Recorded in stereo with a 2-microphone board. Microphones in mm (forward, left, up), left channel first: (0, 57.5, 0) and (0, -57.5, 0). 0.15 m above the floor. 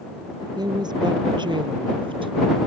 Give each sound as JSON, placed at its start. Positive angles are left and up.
{"t": 0.6, "sound": "a woman speaking", "side_deg": -40}